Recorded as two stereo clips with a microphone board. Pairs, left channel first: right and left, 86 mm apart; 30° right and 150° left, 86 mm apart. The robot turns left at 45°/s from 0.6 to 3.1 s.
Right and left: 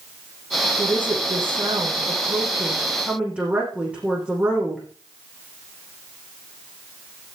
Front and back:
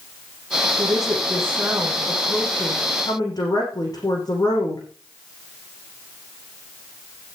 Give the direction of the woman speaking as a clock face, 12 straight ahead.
8 o'clock.